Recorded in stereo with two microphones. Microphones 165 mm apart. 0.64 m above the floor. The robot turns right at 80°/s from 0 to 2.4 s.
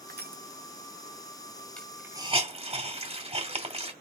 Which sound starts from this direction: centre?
A hiss, at 1.8 s.